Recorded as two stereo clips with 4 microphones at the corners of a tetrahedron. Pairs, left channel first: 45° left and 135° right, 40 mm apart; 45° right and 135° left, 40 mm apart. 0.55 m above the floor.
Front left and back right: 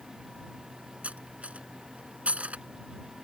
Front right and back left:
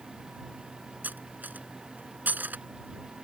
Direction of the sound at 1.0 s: 170° left.